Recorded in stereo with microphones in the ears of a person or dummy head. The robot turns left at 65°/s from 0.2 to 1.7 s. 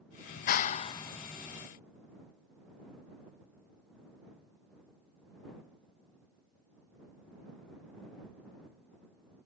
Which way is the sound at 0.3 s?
75° left.